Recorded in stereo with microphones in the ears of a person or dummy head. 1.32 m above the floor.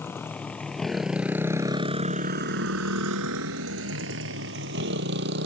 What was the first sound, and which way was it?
A motorcycle, 10° left (ahead or behind).